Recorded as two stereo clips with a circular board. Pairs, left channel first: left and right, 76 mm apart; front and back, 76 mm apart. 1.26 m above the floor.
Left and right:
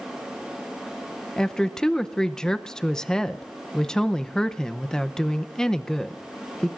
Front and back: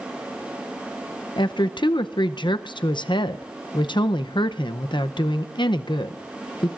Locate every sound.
1.4 s a woman speaking: 10° left, 0.6 m